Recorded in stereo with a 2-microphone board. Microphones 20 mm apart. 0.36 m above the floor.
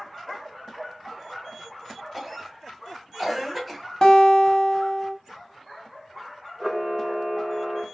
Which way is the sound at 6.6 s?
30° right (ahead or behind).